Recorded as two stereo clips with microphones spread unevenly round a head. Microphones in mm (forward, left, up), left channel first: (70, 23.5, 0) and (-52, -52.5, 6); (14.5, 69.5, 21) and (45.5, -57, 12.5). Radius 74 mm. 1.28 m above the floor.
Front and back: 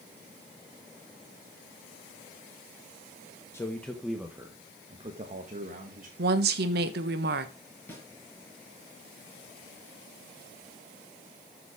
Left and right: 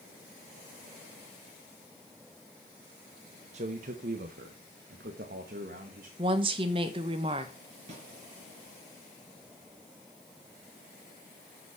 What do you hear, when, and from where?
3.5 s a man speaking: 40° right, 1.1 m; by 6.1 s 110° right, 1.8 m
6.2 s a woman speaking: 135° right, 1.1 m
7.9 s a snare drum: 45° right, 4 m